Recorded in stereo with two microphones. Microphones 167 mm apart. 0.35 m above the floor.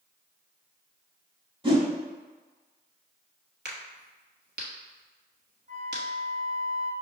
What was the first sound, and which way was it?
A whoosh, 35° right (ahead or behind).